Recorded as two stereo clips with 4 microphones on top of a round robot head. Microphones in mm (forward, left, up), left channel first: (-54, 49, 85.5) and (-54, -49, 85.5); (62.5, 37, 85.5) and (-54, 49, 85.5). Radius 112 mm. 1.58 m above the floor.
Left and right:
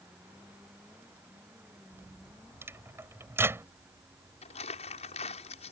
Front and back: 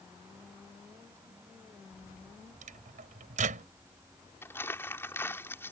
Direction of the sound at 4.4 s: 65° left.